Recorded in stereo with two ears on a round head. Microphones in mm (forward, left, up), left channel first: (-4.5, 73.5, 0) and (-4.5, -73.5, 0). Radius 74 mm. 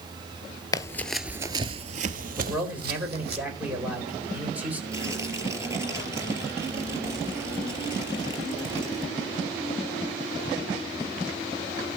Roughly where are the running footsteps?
Left.